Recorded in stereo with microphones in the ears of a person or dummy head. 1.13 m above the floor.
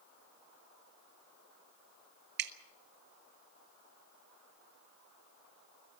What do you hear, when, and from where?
2.4 s dripping: 60° right (ahead or behind), 0.9 m